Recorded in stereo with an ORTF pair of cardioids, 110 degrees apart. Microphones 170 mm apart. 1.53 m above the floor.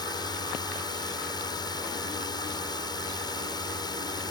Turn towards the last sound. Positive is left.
turn(degrees=25)